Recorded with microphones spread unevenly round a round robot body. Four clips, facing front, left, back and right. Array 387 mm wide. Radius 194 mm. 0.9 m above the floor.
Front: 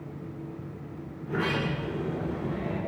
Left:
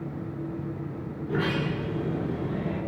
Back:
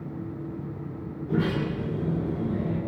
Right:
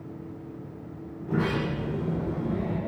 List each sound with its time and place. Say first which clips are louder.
1.2 s a sliding door: right 1 dB, back 3 dB; 145° right, 9 m